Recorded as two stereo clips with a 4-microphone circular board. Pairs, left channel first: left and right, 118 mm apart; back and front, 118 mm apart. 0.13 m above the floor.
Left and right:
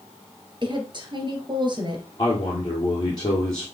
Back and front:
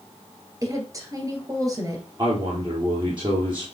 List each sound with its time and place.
0.6 s a woman speaking: 55° right, 2.5 m
2.2 s a man speaking: 40° left, 2.5 m